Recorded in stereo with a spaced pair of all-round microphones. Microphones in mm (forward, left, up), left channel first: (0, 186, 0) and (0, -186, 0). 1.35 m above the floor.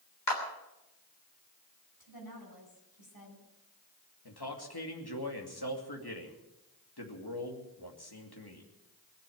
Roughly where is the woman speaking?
Left.